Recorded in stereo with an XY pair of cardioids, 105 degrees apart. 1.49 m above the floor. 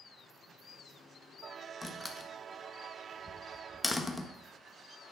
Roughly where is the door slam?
Ahead.